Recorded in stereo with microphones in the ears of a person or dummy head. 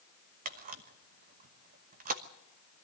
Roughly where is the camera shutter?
Right.